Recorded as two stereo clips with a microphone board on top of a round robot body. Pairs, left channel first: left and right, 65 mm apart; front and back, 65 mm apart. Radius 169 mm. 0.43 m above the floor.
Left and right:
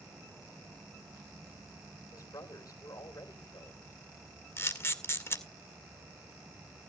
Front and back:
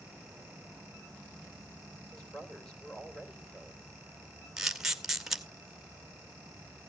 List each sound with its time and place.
2.1 s a woman speaking: 80° left, 3 m
4.6 s a camera shutter: 100° left, 1.7 m